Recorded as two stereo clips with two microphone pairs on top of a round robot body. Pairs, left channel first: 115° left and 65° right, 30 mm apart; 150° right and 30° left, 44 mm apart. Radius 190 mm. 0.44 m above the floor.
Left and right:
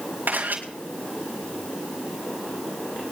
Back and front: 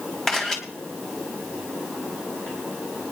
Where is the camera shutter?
70° right, 4 m.